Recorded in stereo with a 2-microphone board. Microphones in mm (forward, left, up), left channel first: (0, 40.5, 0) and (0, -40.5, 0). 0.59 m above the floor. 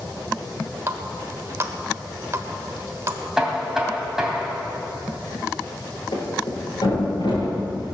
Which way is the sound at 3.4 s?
5° right (ahead or behind).